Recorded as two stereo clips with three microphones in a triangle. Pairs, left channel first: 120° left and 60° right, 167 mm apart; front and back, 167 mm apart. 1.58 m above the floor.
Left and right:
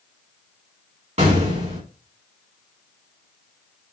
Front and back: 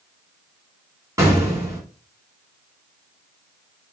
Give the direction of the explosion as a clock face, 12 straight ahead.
4 o'clock.